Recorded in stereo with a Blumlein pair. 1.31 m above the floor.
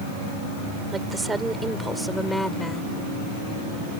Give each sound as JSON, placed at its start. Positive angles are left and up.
{"t": 0.9, "sound": "a woman speaking", "azimuth_deg": -15}